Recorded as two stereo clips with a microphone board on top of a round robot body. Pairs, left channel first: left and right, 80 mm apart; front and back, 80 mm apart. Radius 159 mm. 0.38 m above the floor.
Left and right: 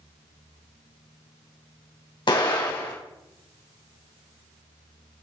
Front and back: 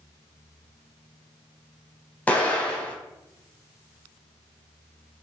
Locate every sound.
2.3 s an explosion: 70° left, 4 m